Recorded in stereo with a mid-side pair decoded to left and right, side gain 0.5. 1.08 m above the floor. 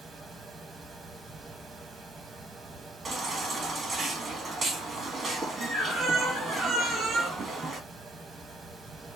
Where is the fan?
35° right, 1.0 m.